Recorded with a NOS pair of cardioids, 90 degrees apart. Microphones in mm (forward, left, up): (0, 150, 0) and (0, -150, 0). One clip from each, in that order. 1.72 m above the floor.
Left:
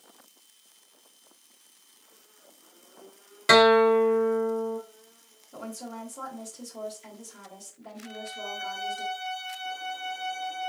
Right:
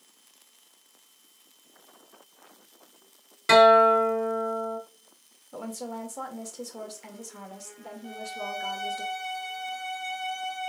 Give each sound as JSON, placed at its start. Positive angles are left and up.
{"t": 3.5, "sound": "a guitar", "azimuth_deg": 20, "distance_m": 0.8}
{"t": 5.5, "sound": "a woman speaking", "azimuth_deg": -35, "distance_m": 1.6}
{"t": 8.0, "sound": "a violin", "azimuth_deg": -55, "distance_m": 2.5}